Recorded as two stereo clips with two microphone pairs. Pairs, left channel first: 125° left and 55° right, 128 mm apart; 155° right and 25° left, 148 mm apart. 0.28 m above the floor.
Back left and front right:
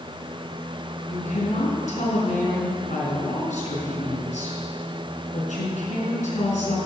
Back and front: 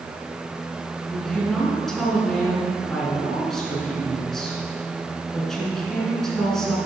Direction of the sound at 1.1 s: 120° left.